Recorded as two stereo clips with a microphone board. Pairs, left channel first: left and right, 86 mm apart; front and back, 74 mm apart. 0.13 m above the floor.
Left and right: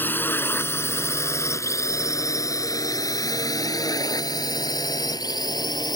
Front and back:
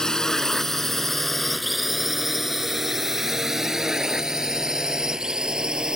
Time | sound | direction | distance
0.0 | a drone | 70° left | ?